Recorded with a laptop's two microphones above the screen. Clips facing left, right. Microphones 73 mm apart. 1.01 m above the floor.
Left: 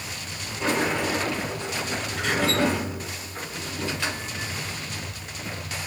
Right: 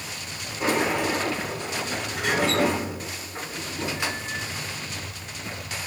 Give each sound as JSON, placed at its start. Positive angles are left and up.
{"t": 0.6, "sound": "a sliding door", "side_deg": -15, "distance_m": 0.9}